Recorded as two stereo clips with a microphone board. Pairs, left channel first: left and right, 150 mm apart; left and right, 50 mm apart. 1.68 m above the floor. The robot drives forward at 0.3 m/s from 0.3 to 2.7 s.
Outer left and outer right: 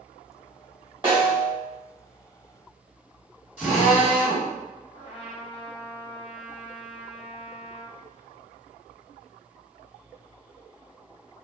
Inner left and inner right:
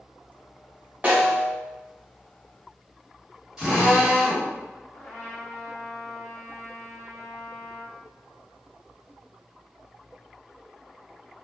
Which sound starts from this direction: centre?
A drill, at 3.6 s.